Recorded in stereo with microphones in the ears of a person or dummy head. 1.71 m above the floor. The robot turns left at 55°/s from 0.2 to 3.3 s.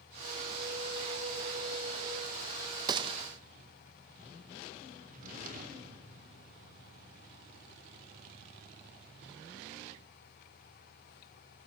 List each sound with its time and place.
2.9 s a gunshot: 25° right (ahead or behind), 1.3 m; by 3.2 s 40° right (ahead or behind), 1.3 m
5.1 s a drawer: 50° right (ahead or behind), 3.5 m